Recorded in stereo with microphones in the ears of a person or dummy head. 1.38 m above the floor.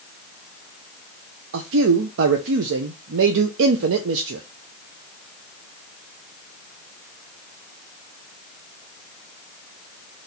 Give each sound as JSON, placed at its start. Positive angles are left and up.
{"t": 1.5, "sound": "a man speaking", "side_deg": -70, "distance_m": 0.6}